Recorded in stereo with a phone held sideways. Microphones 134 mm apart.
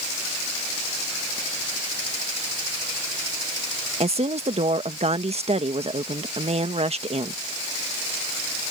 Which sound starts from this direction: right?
A woman speaking, at 4.0 s.